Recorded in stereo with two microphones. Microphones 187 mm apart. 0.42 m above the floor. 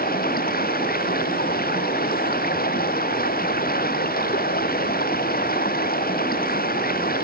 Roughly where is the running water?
Left.